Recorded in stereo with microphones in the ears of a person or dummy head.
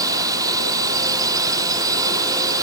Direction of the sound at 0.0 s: 20° right (ahead or behind).